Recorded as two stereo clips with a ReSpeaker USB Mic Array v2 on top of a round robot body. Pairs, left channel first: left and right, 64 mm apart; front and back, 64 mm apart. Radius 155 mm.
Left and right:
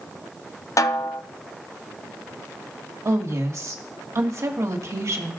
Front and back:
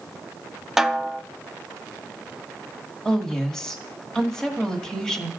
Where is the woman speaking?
80° right, 1.6 m.